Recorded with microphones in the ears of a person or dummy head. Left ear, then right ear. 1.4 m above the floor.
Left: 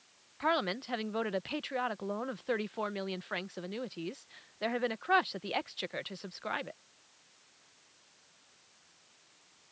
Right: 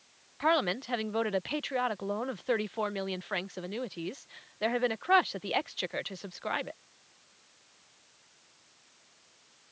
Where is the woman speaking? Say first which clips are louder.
Right 3 dB; 10° right (ahead or behind).